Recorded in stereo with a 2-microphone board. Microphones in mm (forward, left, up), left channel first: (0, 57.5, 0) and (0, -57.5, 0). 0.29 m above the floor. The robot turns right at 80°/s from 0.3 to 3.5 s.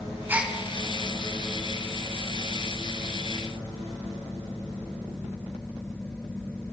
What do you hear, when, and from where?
0.3 s a gasp: 15° right (ahead or behind), 1.0 m; by 0.5 s centre (ahead or behind), 1.0 m